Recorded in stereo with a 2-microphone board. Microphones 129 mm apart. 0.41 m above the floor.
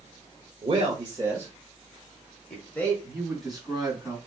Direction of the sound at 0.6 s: 45° right (ahead or behind).